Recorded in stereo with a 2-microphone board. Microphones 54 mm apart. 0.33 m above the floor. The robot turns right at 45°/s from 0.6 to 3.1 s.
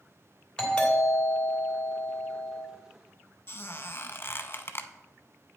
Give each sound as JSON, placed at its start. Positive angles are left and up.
{"t": 0.6, "sound": "a doorbell", "side_deg": 15, "distance_m": 2.0}
{"t": 3.5, "sound": "a squeak", "side_deg": 45, "distance_m": 0.5}